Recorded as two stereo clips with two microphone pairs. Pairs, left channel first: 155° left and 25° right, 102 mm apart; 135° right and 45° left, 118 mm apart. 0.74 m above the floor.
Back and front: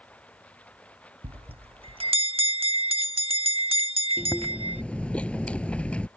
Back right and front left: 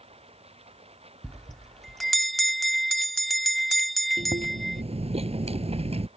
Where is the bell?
45° right.